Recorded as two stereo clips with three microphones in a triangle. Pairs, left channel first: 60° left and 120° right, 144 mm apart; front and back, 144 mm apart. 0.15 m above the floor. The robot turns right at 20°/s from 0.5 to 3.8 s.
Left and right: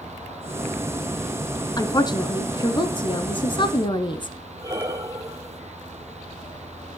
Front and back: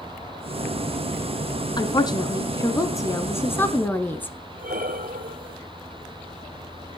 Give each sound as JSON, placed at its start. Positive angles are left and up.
{"t": 1.8, "sound": "a woman speaking", "azimuth_deg": 25, "distance_m": 1.2}
{"t": 4.6, "sound": "breathing", "azimuth_deg": 175, "distance_m": 1.1}